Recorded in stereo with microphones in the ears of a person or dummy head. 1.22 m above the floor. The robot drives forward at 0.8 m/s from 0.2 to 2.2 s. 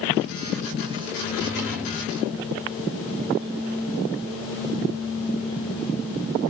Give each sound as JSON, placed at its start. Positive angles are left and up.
{"t": 1.2, "sound": "a drawer", "side_deg": -10, "distance_m": 2.5}